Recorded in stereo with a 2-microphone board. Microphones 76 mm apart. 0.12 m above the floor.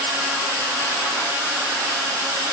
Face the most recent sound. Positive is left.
No sound to turn to.